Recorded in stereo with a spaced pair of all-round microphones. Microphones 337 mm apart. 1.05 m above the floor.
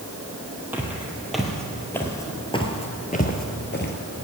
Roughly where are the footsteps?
Centre.